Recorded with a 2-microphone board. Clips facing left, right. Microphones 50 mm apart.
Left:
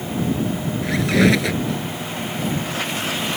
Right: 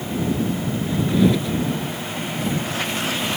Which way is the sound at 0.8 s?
80° left.